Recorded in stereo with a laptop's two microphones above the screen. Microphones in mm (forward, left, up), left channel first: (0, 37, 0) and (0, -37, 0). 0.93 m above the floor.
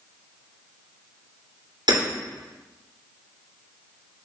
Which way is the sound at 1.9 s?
80° right.